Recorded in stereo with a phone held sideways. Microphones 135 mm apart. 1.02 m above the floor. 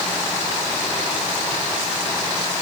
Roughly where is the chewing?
I don't hear chewing.